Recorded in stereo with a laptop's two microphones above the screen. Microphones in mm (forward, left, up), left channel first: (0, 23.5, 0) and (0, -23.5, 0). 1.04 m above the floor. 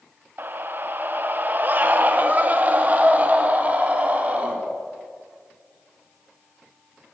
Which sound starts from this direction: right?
A scream, at 0.4 s.